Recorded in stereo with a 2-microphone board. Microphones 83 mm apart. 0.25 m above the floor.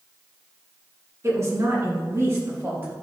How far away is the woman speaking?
About 3 m.